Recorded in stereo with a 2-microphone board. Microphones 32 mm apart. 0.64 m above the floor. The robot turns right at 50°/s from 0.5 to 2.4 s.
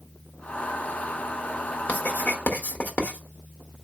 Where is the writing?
55° left (ahead or behind), 1.2 m; by 3.2 s 60° left (ahead or behind), 1.2 m.